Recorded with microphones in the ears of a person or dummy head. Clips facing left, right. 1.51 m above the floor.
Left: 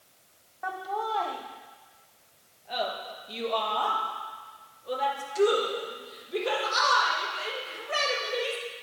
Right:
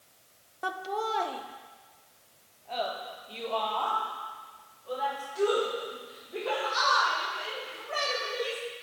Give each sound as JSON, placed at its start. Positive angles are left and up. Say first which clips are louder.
{"t": 0.6, "sound": "laughter", "louder": "even", "side_deg": -40, "distance_m": 0.7}